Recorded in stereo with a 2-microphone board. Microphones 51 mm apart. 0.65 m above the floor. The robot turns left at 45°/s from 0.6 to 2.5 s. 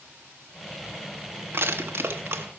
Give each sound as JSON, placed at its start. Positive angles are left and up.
{"t": 1.5, "sound": "crushing", "side_deg": -45, "distance_m": 0.9}